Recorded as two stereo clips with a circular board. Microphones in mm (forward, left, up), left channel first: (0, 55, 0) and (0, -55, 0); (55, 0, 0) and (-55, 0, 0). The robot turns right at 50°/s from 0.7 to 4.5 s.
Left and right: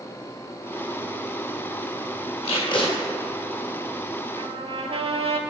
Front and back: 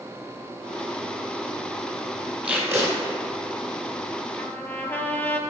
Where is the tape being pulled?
105° left, 1.8 m; by 2.9 s 130° left, 1.8 m.